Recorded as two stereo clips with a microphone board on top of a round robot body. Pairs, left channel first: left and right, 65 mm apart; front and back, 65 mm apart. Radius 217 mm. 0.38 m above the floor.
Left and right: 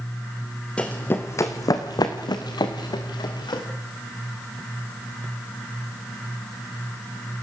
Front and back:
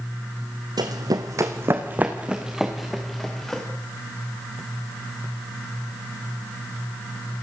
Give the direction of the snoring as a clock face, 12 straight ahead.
No snoring in this recording.